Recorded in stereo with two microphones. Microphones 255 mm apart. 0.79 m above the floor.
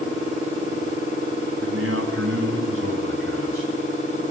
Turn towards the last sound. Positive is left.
turn(degrees=-55)  # may be behind; listen again after turning